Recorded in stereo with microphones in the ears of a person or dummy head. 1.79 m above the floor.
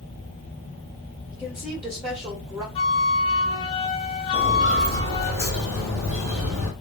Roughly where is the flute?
Left.